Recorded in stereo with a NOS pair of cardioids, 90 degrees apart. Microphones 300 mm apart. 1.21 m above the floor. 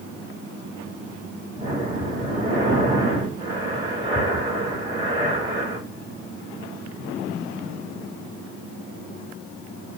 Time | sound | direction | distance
1.6 | breathing | 15° right | 7.5 m